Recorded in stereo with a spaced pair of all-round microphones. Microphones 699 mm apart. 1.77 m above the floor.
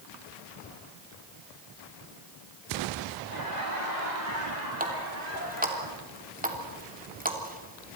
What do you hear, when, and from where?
3.3 s laughter: 80° right, 8.5 m; by 5.8 s 70° right (ahead or behind), 9.5 m
4.8 s a running tap: 10° right (ahead or behind), 3 m